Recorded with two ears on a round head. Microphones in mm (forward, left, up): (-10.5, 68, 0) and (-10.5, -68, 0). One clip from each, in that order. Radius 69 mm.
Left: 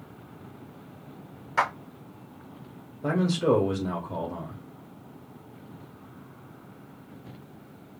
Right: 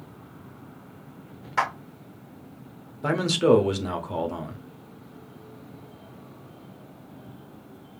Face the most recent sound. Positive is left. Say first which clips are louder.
# right 4 dB
turn(degrees=-65)  # may be behind; listen again after turning